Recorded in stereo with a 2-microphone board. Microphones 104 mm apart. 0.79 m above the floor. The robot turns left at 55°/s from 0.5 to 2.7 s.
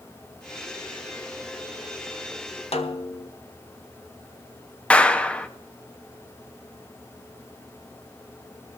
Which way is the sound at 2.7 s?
75° left (ahead or behind).